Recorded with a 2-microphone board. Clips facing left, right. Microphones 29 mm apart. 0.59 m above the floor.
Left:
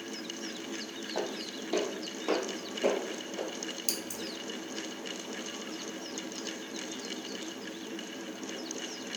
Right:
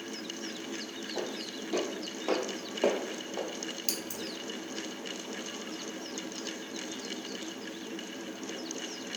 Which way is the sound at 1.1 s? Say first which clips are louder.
Left 2 dB; 50° left (ahead or behind).